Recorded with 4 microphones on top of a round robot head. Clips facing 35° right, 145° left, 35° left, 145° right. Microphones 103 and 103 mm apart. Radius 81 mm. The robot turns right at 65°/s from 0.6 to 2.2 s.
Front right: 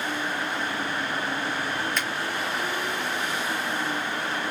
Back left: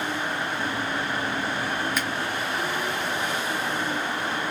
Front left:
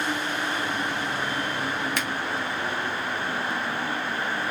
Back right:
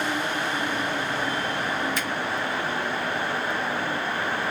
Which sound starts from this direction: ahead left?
A finger snap, at 2.0 s.